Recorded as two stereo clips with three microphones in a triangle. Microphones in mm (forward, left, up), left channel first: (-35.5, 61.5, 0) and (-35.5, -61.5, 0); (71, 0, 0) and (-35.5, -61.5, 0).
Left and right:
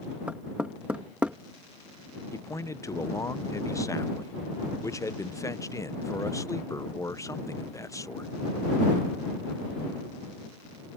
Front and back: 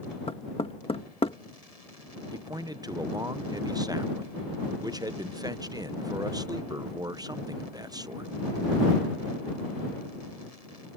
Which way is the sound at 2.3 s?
155° left.